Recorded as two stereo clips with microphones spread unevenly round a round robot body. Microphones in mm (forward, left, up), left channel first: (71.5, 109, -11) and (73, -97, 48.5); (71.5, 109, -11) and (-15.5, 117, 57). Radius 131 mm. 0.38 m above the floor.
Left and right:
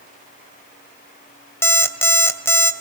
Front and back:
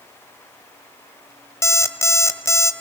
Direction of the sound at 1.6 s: 20° left.